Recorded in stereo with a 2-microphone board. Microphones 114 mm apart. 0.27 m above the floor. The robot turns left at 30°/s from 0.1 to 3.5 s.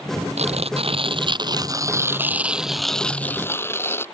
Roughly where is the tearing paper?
Right.